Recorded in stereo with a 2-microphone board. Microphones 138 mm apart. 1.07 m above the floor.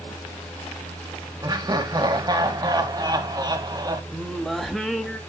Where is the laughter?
30° right (ahead or behind), 1.2 m.